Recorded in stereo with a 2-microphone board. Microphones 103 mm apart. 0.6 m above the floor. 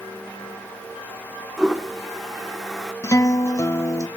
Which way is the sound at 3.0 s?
30° left (ahead or behind).